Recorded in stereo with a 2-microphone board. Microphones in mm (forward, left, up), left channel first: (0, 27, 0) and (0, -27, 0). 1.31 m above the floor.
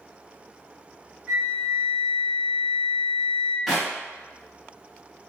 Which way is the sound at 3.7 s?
5° right (ahead or behind).